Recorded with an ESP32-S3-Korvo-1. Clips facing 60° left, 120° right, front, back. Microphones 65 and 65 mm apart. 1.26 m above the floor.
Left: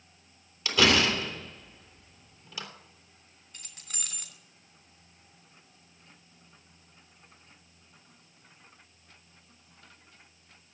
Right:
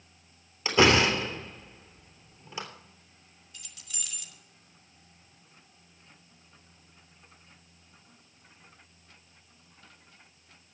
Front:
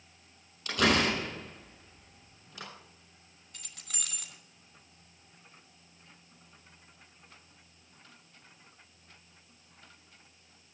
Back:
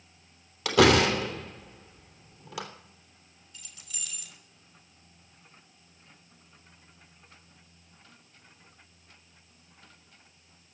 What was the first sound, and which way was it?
A door slam, straight behind.